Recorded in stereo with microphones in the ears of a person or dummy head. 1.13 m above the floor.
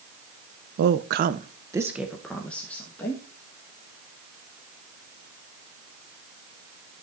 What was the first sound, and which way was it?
A woman speaking, 55° right (ahead or behind).